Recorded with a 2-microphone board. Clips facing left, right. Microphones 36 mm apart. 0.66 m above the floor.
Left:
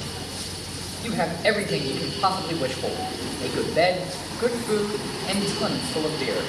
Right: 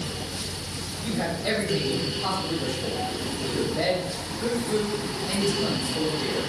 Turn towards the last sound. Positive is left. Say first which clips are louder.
# left 5 dB
turn(degrees=70)  # may be behind; listen again after turning